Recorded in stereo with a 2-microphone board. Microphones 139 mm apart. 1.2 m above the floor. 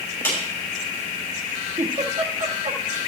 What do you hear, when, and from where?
0.2 s a clap: 15° left (ahead or behind), 6 m
1.8 s a giggle: 65° right (ahead or behind), 1.7 m